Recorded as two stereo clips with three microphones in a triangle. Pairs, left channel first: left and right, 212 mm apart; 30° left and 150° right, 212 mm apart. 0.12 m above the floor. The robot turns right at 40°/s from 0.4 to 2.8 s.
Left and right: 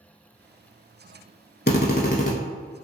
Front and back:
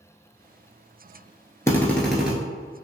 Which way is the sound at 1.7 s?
100° left.